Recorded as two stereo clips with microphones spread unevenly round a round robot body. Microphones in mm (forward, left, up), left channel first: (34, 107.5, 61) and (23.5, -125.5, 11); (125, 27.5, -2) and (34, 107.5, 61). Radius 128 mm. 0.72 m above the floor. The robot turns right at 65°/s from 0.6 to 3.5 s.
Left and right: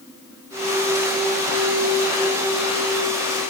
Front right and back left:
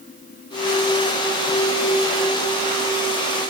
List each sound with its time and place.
Only background noise.